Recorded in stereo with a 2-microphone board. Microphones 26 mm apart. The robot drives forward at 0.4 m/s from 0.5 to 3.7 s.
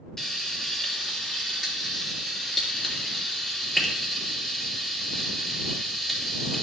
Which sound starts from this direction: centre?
Frying, at 0.2 s.